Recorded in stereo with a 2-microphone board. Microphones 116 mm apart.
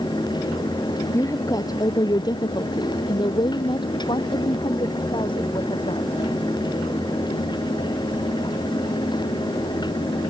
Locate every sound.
1.1 s a woman speaking: 25° left (ahead or behind); by 6.2 s 45° left (ahead or behind)